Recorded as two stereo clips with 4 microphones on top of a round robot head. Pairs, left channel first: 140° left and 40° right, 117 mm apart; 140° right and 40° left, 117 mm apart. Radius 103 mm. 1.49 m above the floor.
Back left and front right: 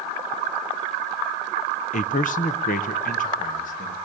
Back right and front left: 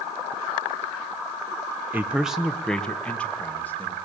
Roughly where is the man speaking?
Behind left.